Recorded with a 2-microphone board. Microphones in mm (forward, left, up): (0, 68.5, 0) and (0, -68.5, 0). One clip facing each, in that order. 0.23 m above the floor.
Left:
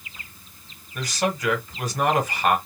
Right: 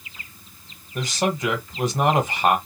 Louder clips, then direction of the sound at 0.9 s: Right 2 dB; 25° right (ahead or behind).